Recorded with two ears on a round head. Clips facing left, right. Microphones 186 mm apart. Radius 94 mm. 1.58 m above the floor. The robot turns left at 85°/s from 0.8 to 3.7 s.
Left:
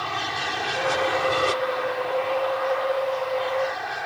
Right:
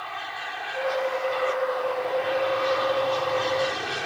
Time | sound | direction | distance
0.0 | an aircraft | 115° left | ?